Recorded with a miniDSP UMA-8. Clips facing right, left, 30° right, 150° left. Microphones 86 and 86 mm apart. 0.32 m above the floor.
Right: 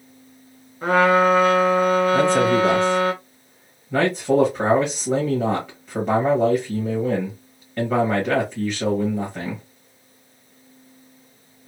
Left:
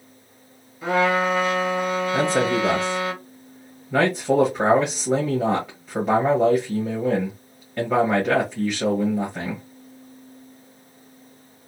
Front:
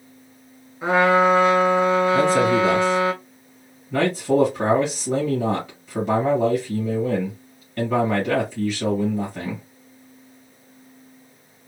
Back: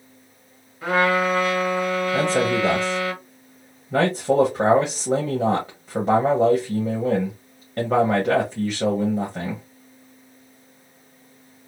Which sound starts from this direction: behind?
A man speaking, at 2.1 s.